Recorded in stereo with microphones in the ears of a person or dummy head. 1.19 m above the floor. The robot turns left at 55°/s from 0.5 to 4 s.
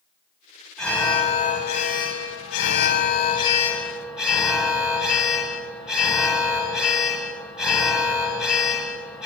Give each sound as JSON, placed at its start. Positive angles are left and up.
{"t": 0.8, "sound": "an alarm", "azimuth_deg": 170, "distance_m": 4.0}